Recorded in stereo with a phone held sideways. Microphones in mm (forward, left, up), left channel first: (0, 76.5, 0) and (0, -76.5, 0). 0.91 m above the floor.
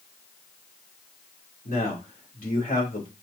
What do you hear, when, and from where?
1.6 s a man speaking: 65° left (ahead or behind), 2.5 m